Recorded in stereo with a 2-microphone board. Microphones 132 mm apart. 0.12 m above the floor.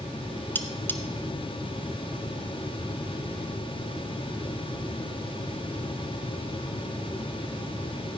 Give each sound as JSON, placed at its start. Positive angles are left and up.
{"t": 0.6, "sound": "cutlery clinking", "side_deg": 15, "distance_m": 0.9}